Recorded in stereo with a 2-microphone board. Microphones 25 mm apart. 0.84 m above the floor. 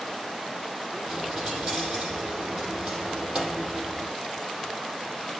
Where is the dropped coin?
45° right (ahead or behind), 7.5 m.